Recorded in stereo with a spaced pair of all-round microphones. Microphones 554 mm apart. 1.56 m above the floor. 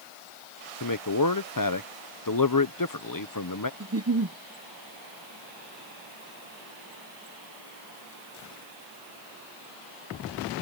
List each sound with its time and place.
0.8 s a man speaking: 35° left (ahead or behind)
3.8 s a giggle: 30° right (ahead or behind)